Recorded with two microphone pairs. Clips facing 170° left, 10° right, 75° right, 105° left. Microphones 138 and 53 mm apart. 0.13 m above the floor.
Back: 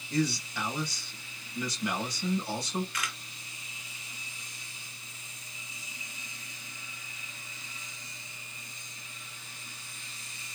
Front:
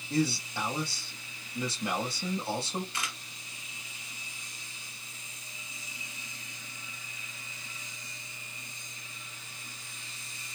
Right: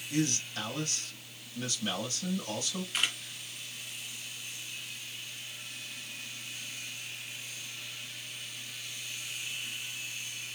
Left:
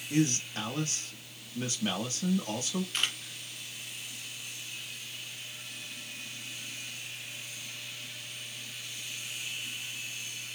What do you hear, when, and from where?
0.1 s a man speaking: 45° left, 3 m
2.9 s a camera shutter: straight ahead, 1.6 m